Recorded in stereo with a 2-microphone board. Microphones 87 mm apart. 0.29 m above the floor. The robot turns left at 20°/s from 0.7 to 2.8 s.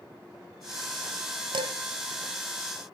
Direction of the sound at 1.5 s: 65° right (ahead or behind).